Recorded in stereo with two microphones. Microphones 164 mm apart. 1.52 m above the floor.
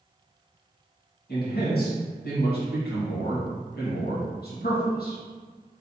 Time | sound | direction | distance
1.3 | a man speaking | 70° left (ahead or behind) | 1.6 m